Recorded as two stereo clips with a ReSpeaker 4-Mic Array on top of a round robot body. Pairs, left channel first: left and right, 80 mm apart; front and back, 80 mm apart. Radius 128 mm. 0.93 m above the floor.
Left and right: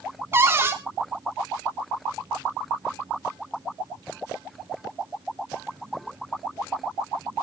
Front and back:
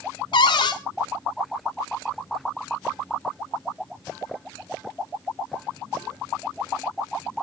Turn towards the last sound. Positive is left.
turn(degrees=-30)